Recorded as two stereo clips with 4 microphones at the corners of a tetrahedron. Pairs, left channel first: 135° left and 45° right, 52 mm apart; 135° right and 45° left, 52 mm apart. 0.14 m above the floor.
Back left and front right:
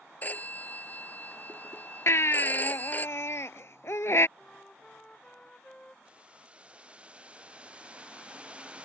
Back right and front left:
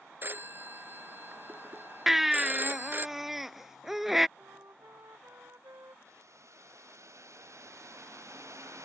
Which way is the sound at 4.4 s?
65° left.